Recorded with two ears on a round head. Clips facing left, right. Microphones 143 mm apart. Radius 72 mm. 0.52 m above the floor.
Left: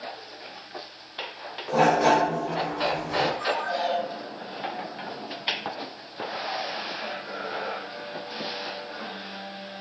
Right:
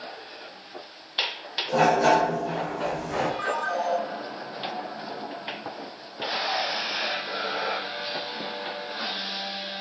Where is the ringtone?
25° left (ahead or behind), 4 m.